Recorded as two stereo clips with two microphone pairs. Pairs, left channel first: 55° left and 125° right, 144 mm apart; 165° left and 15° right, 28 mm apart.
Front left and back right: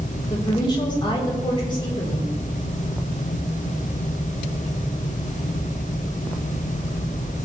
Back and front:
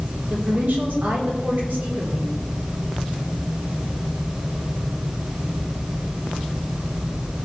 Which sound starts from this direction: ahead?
A woman speaking, at 0.3 s.